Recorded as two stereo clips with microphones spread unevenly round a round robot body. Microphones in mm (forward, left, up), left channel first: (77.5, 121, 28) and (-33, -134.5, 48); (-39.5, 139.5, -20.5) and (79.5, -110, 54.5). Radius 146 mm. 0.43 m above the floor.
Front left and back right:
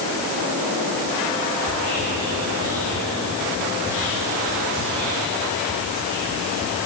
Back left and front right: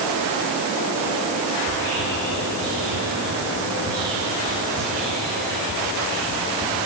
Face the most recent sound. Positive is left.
turn(degrees=-15)